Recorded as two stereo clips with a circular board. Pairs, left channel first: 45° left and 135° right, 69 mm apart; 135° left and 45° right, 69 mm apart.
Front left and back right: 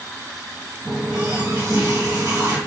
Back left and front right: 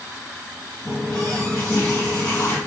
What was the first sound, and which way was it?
A running tap, 160° right.